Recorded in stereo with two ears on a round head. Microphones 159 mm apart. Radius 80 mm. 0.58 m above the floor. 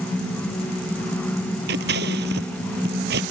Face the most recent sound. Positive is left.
turn(degrees=-65)  # may be behind; listen again after turning